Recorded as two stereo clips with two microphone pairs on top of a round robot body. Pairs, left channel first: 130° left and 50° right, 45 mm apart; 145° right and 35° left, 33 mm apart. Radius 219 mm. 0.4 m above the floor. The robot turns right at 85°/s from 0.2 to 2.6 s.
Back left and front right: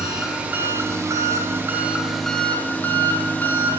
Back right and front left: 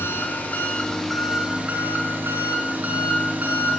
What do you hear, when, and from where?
0.0 s an engine running: 130° right, 0.8 m; by 3.8 s 70° left, 0.8 m